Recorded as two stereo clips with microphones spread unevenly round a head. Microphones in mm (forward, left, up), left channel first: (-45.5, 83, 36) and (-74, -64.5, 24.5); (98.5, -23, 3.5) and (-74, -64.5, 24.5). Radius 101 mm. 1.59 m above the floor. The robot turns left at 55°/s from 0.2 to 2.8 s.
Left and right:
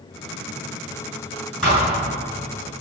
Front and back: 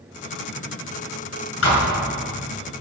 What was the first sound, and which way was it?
A thud, 5° right.